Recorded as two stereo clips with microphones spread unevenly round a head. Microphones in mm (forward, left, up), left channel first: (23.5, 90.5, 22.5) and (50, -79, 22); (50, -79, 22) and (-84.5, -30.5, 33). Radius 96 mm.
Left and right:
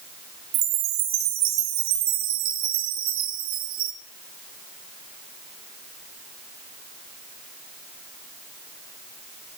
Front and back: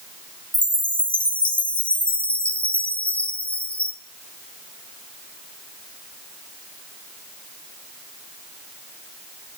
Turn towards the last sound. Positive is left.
turn(degrees=-100)